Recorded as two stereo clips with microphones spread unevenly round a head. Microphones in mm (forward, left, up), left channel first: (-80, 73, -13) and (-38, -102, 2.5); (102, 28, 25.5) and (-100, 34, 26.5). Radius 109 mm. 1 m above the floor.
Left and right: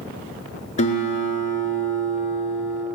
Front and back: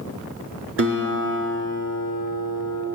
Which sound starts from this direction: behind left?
A guitar, at 0.8 s.